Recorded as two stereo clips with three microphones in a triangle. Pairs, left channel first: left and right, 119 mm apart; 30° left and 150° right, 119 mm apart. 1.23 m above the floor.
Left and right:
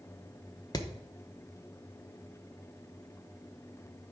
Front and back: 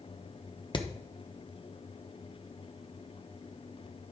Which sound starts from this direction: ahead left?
Hammering, at 0.7 s.